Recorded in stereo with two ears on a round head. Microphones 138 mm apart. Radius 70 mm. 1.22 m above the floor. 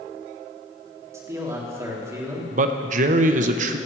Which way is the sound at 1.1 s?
20° right (ahead or behind).